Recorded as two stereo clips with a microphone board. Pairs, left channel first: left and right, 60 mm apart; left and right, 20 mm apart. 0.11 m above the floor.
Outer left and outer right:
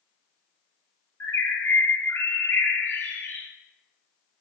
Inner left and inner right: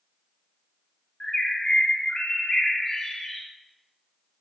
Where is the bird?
40° left (ahead or behind), 1.3 m.